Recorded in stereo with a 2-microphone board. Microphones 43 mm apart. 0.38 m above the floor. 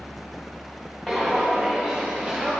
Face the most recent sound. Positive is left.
turn(degrees=-5)  # may be behind; listen again after turning